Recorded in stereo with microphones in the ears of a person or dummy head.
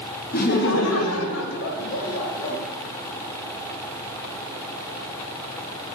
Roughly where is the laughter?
Left.